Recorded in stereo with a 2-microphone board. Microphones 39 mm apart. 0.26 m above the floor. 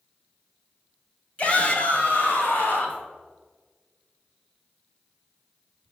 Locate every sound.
1.4 s a shout: 35° left (ahead or behind), 1.8 m; by 3.0 s 60° left (ahead or behind), 2.5 m